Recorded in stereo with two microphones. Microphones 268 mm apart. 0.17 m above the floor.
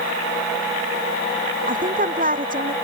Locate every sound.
1.7 s a woman speaking: 30° right (ahead or behind)